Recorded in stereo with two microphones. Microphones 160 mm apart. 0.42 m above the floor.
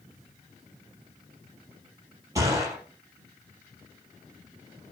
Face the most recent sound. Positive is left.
turn(degrees=-20)  # may be behind; listen again after turning